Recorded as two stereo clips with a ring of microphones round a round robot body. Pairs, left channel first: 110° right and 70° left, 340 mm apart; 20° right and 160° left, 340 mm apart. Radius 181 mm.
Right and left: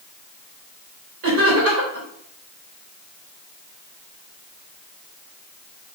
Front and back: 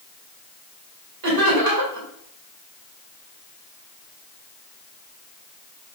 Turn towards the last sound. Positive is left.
turn(degrees=120)